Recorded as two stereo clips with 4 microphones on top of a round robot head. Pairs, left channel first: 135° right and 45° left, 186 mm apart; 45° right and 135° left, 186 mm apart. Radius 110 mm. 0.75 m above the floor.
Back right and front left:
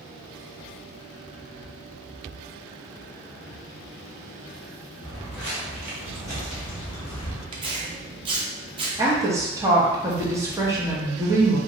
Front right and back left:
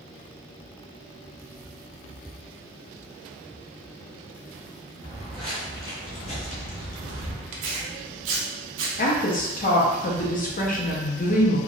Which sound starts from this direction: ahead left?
Footsteps, at 5.0 s.